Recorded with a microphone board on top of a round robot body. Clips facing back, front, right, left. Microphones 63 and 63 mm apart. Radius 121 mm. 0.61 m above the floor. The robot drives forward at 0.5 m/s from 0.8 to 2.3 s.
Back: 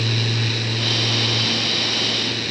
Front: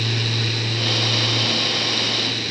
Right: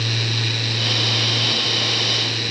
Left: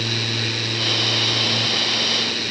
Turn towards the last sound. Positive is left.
No sound to turn to.